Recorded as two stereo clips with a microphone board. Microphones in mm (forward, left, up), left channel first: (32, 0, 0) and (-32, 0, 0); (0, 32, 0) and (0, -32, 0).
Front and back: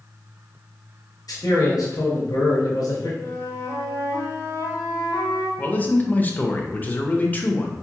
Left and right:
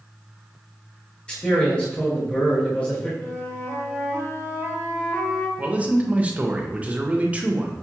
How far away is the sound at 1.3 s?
About 1.2 m.